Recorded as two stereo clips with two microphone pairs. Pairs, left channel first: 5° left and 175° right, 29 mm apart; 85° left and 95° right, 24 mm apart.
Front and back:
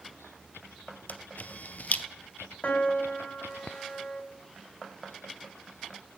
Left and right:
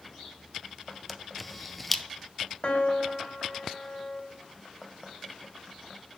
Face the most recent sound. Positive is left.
turn(degrees=45)